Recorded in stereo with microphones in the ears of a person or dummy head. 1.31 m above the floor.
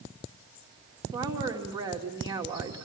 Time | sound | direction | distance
1.1 | a woman speaking | 20° right (ahead or behind) | 2.5 m